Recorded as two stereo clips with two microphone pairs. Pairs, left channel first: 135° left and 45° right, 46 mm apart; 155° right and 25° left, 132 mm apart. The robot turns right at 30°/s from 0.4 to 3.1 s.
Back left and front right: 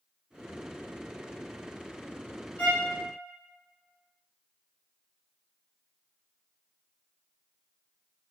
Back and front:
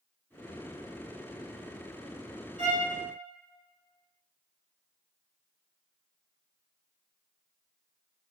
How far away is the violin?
About 1.7 m.